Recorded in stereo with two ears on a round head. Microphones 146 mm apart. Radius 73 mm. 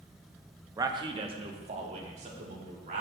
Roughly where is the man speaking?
Centre.